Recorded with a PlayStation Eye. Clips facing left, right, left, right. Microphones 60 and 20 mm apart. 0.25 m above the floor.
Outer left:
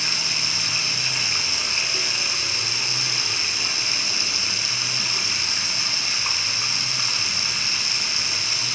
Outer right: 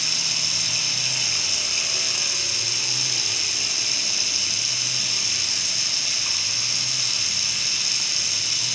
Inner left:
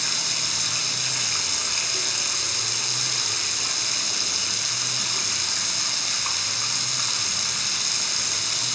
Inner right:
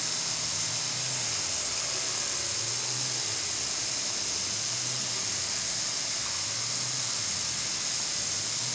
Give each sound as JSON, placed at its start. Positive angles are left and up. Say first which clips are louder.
{"t": 0.0, "sound": "running water", "louder": "outer left 3 dB, inner left 7 dB", "side_deg": 45, "distance_m": 1.9}